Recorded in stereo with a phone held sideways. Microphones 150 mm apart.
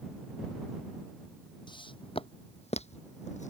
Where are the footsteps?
30° left (ahead or behind); by 3.5 s 55° left (ahead or behind).